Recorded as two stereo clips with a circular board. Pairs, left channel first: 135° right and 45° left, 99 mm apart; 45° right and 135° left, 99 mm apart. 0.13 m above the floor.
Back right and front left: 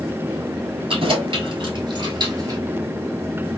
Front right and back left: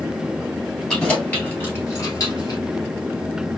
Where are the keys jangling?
35° left, 1.8 m; by 2.6 s 5° right, 1.8 m.